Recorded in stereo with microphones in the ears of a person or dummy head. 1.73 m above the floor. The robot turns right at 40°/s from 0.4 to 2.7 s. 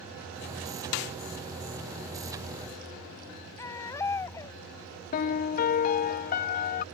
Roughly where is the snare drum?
Left.